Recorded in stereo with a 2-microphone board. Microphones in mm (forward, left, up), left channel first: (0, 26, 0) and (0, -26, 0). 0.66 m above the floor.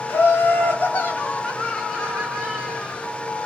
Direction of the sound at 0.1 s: 50° left (ahead or behind).